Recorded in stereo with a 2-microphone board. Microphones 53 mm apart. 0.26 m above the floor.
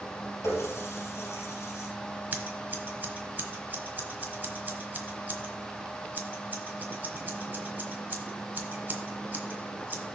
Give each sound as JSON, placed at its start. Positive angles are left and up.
{"t": 0.4, "sound": "a running tap", "side_deg": 60, "distance_m": 3.5}
{"t": 2.3, "sound": "scissors", "side_deg": -35, "distance_m": 1.2}